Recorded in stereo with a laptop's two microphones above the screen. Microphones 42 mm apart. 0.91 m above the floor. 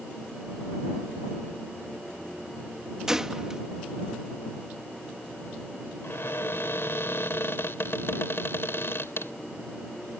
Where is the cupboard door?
70° left (ahead or behind).